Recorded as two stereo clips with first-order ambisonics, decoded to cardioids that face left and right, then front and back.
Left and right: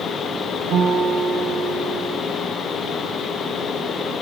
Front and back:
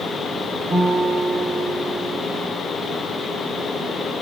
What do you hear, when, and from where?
0.7 s a guitar: 110° right, 1.4 m